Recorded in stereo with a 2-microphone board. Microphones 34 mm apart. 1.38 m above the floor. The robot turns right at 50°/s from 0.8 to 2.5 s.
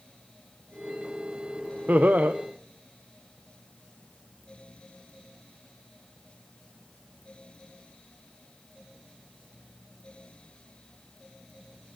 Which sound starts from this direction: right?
Laughter, at 1.9 s.